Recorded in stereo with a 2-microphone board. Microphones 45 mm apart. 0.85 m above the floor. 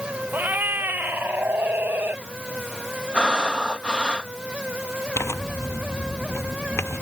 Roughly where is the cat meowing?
Right.